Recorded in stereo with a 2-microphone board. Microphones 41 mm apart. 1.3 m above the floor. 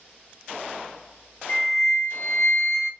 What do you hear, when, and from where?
1.5 s a flute: 70° left (ahead or behind), 1.6 m